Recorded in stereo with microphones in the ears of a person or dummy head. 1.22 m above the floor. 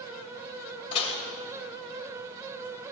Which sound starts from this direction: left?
Dishes clattering, at 0.9 s.